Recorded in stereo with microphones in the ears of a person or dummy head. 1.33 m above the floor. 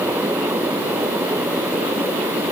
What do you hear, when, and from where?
Only background noise.